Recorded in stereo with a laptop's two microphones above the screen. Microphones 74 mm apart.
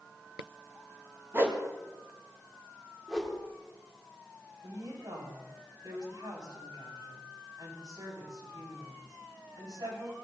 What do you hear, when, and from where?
1.3 s a whoosh: 30° right (ahead or behind), 1.4 m
3.1 s a whoosh: 5° right (ahead or behind), 2 m
4.6 s a woman speaking: 65° right (ahead or behind), 8 m